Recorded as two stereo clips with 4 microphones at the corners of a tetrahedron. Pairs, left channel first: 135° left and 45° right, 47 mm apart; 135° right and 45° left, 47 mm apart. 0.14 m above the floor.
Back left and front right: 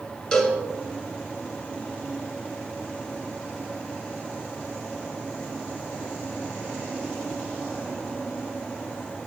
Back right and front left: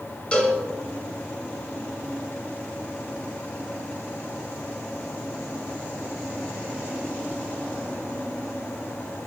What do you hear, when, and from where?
0.3 s a cowbell: 160° right, 1.7 m